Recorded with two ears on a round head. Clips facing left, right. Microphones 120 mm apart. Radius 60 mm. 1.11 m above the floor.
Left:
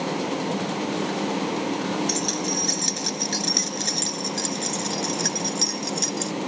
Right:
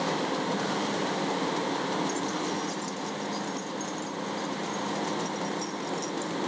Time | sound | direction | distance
2.1 | keys jangling | 80° left | ?